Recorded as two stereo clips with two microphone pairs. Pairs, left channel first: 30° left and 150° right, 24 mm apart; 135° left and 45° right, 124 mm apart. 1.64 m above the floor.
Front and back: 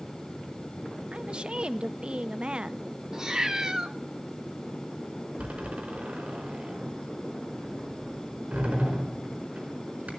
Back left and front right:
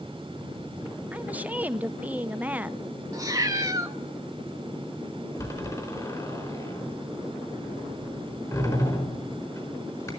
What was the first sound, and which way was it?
A woman speaking, 125° right.